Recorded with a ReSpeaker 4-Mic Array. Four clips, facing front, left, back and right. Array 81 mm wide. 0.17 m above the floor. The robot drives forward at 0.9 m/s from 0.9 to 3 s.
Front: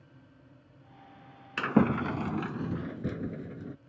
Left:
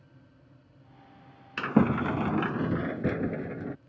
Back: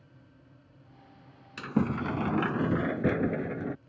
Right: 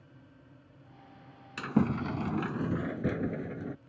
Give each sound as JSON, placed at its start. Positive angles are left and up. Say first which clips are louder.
{"t": 1.6, "sound": "a sliding door", "louder": "left 5 dB, front 4 dB", "azimuth_deg": 30}